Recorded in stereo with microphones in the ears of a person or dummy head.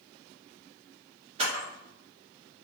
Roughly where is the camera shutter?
Right.